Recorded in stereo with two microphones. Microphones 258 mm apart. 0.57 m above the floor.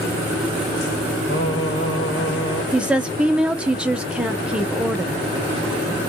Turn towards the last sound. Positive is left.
turn(degrees=-5)  # may be behind; listen again after turning